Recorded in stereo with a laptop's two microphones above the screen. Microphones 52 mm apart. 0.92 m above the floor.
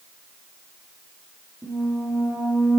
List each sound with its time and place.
1.6 s a squeak: 80° right, 1.2 m